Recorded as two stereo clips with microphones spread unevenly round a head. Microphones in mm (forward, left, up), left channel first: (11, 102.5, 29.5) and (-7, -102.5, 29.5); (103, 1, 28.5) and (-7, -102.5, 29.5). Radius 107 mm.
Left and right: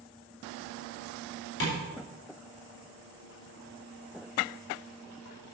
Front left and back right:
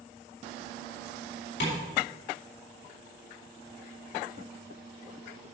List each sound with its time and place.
1.6 s tapping: 55° left, 4 m